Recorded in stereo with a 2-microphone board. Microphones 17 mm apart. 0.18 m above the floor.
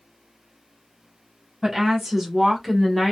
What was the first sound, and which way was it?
A woman speaking, 10° right (ahead or behind).